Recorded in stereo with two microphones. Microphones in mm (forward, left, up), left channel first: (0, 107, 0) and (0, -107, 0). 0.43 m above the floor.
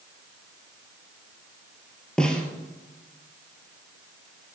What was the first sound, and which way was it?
A snare drum, 5° left (ahead or behind).